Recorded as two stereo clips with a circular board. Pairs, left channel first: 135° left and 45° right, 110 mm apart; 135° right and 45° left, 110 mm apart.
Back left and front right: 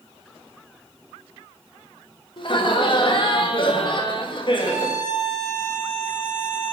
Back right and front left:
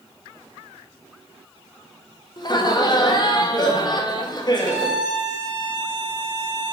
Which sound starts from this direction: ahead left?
A violin, at 4.6 s.